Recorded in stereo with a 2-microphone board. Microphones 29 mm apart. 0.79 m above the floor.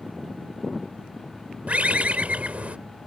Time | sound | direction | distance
1.7 | a bird | 45° right (ahead or behind) | ?